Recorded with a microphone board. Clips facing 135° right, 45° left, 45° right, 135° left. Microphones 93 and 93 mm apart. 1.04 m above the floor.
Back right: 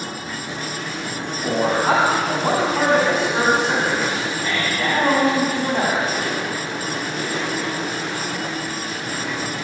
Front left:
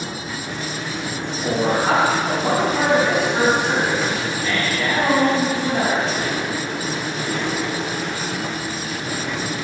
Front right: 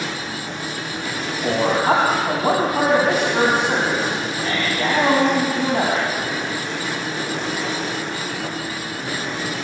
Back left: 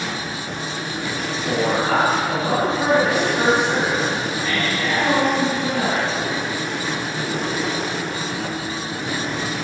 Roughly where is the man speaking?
Ahead right.